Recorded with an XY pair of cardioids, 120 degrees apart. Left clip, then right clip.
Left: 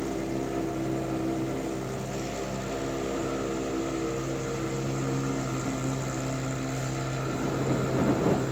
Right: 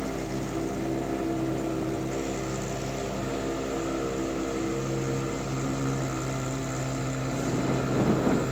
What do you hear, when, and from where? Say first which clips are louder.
0.0 s a fan: left 1 dB; 10° right